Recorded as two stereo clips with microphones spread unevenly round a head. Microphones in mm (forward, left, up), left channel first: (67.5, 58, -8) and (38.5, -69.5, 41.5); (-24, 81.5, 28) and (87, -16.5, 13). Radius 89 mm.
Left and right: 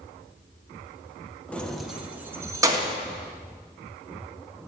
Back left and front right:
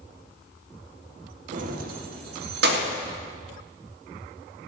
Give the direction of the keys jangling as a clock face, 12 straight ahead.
1 o'clock.